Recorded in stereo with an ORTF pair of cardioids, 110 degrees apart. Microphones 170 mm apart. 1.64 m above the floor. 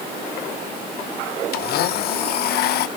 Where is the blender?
70° left, 0.9 m.